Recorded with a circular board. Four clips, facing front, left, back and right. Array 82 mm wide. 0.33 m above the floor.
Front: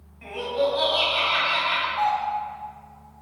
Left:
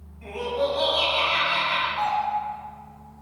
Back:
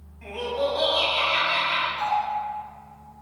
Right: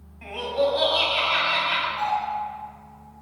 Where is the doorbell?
20° left, 1.9 m.